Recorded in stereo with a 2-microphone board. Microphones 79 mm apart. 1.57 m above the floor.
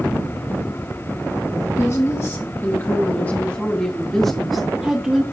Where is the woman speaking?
45° left (ahead or behind), 3 m; by 5.2 s 10° right (ahead or behind), 3 m.